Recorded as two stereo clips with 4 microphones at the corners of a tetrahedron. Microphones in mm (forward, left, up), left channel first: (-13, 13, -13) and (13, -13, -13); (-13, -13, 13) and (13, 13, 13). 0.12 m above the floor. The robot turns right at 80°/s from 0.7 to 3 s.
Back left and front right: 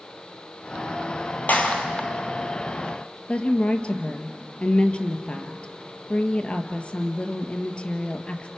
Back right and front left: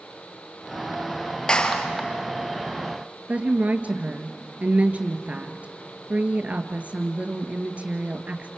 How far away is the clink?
No clink in this recording.